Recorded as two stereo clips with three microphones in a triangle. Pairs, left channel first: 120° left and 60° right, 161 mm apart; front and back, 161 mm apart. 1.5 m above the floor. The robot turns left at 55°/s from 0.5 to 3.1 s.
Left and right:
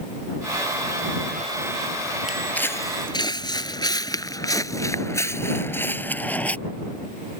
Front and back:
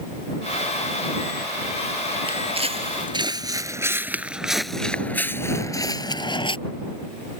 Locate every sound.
2.3 s footsteps: 145° right; by 6.6 s 40° left